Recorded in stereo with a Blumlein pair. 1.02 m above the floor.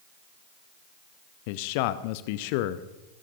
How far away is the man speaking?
About 0.8 m.